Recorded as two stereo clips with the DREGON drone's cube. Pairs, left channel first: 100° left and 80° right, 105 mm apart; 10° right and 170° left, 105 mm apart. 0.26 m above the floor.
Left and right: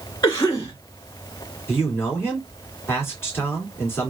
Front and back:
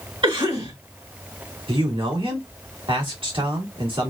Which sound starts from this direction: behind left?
A cough, at 0.2 s.